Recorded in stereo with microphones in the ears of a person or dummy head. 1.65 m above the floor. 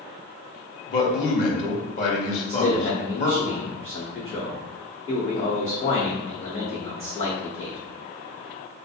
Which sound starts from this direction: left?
A man speaking, at 0.9 s.